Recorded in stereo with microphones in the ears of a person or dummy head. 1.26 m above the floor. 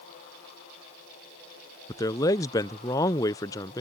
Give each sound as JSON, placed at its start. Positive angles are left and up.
{"t": 1.9, "sound": "a man speaking", "side_deg": 15}